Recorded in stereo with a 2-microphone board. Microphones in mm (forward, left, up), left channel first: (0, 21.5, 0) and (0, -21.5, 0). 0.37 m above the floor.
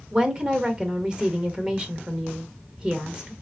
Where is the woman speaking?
20° right (ahead or behind), 0.8 m.